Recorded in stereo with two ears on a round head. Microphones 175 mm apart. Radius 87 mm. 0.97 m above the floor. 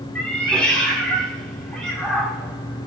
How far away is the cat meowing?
About 1.5 m.